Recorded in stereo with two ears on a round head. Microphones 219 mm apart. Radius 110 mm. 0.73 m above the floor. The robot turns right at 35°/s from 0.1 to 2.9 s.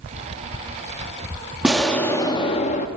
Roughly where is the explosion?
Ahead.